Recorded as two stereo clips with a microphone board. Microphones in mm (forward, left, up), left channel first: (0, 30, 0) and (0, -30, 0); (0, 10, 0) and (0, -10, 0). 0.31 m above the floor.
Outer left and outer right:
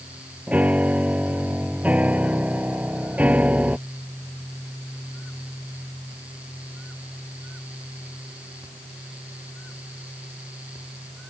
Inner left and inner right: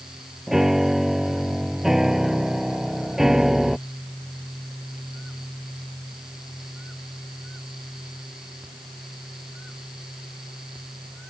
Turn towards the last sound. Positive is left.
turn(degrees=-25)  # may be behind; listen again after turning